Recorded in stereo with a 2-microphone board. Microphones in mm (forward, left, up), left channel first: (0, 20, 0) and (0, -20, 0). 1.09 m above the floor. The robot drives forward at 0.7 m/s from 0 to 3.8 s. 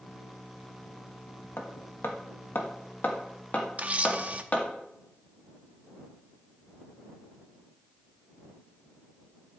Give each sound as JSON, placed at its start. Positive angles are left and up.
{"t": 1.6, "sound": "hammering", "side_deg": 75, "distance_m": 1.3}
{"t": 3.8, "sound": "a camera shutter", "side_deg": -35, "distance_m": 0.7}